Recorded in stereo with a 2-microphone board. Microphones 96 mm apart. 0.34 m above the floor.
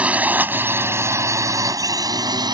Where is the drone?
15° right (ahead or behind); by 2.5 s 50° right (ahead or behind).